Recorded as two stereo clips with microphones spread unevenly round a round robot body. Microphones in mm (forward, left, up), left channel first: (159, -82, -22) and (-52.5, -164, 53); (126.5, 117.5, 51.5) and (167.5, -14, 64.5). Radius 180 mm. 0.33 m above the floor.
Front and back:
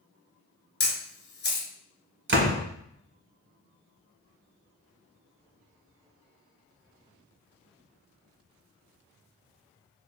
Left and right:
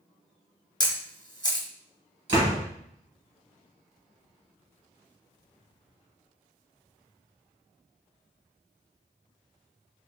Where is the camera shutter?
45° left, 1.4 m.